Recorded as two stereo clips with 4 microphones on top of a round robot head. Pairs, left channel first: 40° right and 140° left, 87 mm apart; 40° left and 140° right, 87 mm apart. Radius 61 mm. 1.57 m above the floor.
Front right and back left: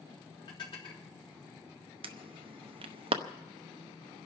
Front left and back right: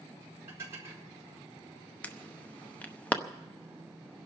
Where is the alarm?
115° left, 0.8 m.